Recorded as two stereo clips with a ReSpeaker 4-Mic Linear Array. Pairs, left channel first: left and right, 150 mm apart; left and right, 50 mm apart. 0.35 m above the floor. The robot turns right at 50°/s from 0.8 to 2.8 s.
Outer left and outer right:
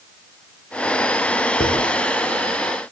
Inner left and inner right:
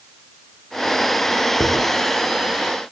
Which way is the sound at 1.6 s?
70° left (ahead or behind).